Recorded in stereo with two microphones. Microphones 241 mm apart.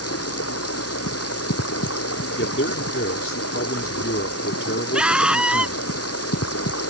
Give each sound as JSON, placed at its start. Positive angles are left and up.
{"t": 0.0, "sound": "running water", "side_deg": 80}
{"t": 2.4, "sound": "a man speaking", "side_deg": 60}
{"t": 4.9, "sound": "a scream", "side_deg": -5}